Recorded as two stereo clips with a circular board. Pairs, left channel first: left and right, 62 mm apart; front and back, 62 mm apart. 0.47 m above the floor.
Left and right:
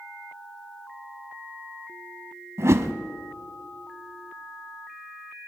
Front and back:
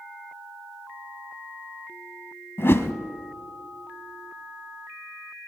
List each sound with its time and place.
2.6 s a whoosh: 50° right, 0.9 m